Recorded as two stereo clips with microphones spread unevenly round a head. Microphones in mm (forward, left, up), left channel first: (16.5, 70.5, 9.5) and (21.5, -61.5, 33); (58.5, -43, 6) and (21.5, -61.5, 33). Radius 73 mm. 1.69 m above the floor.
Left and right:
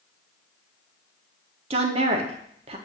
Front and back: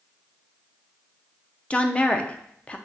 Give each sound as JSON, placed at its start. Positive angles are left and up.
{"t": 1.7, "sound": "a woman speaking", "azimuth_deg": -55, "distance_m": 0.6}